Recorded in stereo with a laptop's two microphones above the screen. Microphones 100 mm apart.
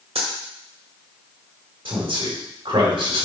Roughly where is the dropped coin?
Right.